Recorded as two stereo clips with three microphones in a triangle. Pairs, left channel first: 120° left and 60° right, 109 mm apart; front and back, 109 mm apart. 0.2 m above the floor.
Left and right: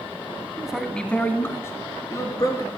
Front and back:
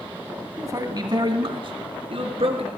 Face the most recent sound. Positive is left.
turn(degrees=170)